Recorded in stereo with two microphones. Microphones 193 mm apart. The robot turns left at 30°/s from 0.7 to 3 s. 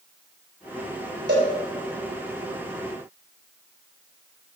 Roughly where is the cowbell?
Right.